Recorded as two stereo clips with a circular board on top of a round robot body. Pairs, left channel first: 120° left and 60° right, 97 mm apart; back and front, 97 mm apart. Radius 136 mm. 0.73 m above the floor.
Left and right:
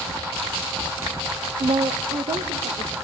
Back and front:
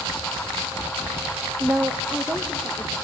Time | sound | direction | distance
1.6 | a woman speaking | 70° right | 0.8 m